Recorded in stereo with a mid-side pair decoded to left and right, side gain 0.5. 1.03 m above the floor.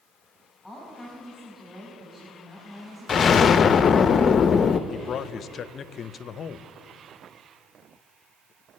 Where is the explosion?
45° left, 0.5 m.